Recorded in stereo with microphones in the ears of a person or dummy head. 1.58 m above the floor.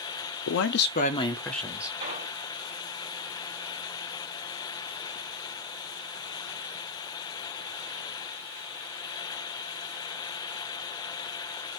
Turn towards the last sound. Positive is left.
turn(degrees=-55)  # may be behind; listen again after turning